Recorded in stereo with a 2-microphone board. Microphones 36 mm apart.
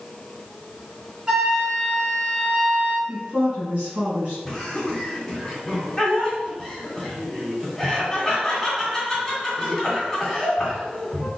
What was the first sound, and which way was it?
A flute, 15° right (ahead or behind).